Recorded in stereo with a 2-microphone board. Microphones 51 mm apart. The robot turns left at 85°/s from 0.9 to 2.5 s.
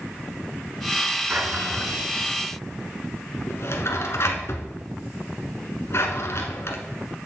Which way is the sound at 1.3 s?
35° right (ahead or behind).